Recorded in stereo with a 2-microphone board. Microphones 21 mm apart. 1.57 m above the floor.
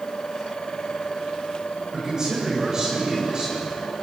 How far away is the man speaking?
About 9 m.